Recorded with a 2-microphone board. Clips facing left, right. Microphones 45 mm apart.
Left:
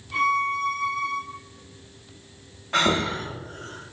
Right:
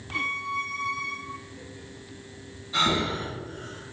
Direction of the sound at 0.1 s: 5° right (ahead or behind).